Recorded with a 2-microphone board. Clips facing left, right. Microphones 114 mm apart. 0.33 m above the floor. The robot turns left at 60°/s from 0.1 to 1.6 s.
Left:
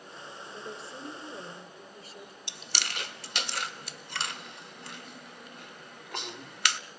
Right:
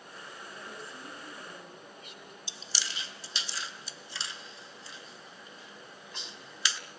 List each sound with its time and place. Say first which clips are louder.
0.5 s a woman speaking: left 5 dB; 100° left, 6.5 m; by 2.4 s 35° left, 6.5 m
2.5 s chewing: left 4 dB; 65° left (ahead or behind), 0.7 m